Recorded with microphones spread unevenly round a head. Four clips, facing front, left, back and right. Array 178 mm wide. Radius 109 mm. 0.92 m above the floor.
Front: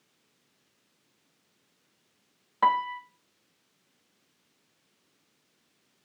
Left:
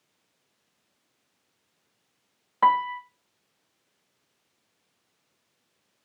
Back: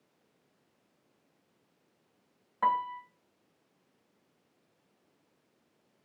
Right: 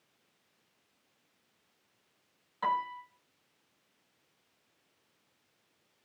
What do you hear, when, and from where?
2.6 s a piano: 50° left, 1.2 m